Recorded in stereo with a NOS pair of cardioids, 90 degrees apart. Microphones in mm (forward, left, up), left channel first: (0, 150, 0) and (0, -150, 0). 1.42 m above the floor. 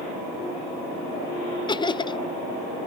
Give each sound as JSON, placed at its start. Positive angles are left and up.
{"t": 1.7, "sound": "laughter", "azimuth_deg": 15, "distance_m": 0.6}